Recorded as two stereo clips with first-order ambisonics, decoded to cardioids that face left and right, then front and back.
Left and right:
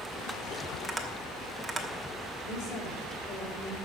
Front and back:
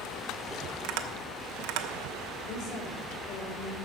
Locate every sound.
0.8 s tapping: 175° right, 1.2 m
2.4 s a woman speaking: 40° left, 4 m